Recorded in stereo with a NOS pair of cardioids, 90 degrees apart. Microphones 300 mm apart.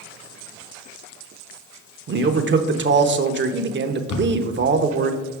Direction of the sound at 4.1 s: 65° left.